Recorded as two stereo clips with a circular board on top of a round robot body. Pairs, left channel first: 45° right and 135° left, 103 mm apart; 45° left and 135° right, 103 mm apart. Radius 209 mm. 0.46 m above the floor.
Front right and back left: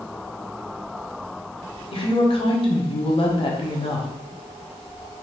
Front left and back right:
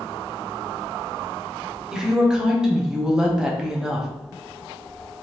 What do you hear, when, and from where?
1.9 s a woman speaking: 50° right, 1.2 m